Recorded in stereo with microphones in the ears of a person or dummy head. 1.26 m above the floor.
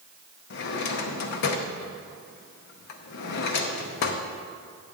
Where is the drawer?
55° left (ahead or behind), 0.9 m.